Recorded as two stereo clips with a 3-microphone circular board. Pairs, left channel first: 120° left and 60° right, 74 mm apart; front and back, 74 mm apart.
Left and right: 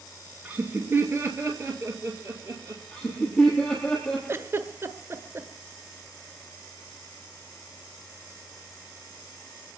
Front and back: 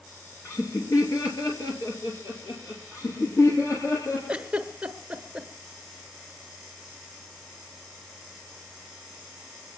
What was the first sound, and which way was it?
Laughter, 5° right.